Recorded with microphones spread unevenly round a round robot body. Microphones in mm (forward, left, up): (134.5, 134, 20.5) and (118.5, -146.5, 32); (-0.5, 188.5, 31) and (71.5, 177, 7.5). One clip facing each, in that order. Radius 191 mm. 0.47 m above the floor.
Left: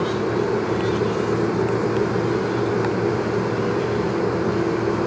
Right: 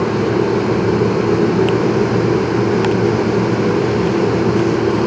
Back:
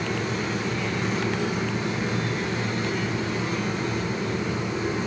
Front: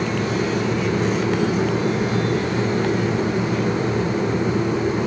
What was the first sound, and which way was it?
Only background noise.